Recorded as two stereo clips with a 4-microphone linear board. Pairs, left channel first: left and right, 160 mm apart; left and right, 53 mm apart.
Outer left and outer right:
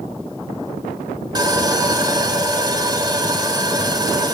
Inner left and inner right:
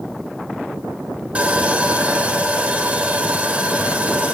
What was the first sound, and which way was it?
Sawing, 25° right (ahead or behind).